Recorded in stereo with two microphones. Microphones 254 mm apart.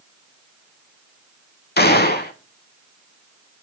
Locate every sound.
1.8 s a gunshot: 40° left (ahead or behind), 0.6 m